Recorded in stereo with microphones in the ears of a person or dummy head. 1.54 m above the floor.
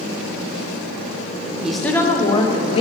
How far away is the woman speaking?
About 0.9 m.